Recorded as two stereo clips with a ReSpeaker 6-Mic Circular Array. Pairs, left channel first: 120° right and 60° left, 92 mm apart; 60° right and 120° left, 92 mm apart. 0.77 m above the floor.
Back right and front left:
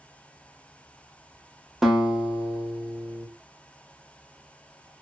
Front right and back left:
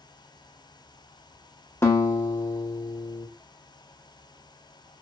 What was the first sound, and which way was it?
A guitar, 25° right.